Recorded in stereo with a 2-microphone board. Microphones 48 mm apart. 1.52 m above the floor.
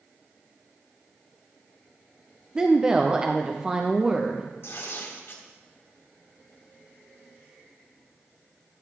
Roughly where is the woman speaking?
Centre.